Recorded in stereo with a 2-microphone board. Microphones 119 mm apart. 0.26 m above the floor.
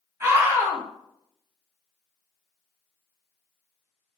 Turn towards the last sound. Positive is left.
turn(degrees=-25)  # may be behind; listen again after turning